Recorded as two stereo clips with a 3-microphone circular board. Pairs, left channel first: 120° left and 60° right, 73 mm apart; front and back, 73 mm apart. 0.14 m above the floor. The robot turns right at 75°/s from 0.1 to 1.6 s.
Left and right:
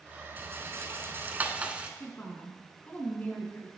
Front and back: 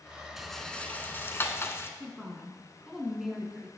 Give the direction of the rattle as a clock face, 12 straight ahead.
3 o'clock.